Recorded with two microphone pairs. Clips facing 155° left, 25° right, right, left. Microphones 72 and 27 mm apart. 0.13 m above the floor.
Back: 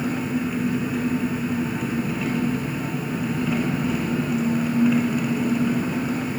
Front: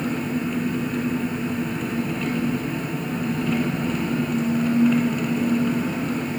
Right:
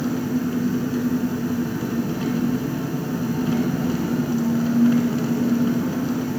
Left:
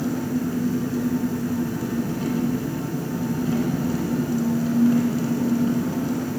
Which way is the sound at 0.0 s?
125° right.